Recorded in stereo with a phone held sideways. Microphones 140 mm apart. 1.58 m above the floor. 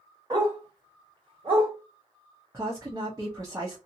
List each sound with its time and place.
0.3 s a dog barking: 25° right (ahead or behind), 1.6 m; by 1.7 s 40° right (ahead or behind), 1.6 m
2.5 s a woman speaking: 25° right (ahead or behind), 0.7 m